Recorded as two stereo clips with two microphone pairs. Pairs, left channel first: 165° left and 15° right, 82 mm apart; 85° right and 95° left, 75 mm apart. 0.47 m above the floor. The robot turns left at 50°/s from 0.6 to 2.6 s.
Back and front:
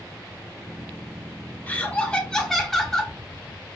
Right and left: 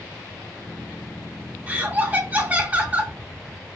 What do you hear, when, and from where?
1.7 s laughter: 120° left, 0.7 m; by 3.1 s 75° left, 0.7 m